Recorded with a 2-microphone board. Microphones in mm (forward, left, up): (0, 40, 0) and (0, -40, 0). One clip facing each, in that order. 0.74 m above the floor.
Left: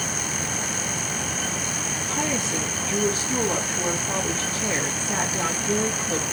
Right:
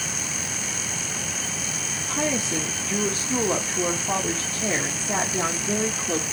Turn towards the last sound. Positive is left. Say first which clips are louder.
# right 2 dB
turn(degrees=-30)  # may be behind; listen again after turning